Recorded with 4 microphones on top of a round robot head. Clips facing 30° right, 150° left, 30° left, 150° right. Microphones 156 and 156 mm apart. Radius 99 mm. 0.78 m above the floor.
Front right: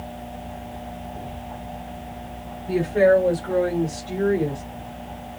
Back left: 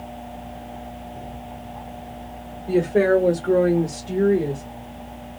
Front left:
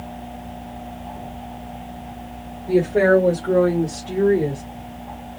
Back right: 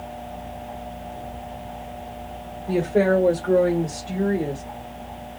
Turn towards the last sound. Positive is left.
turn(degrees=65)